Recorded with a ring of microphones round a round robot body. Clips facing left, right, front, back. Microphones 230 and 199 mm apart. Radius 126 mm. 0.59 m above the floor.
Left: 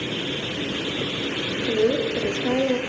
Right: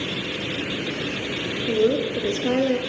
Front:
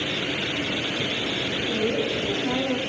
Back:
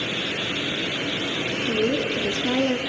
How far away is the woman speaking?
About 1.2 m.